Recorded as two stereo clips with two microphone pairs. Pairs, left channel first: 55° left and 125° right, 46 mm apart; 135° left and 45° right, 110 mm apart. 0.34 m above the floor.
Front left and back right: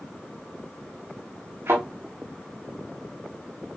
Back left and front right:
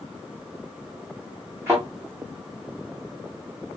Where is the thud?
110° right, 4.5 m.